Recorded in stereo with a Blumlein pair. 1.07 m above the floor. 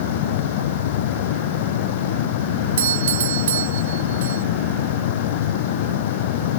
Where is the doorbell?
60° right.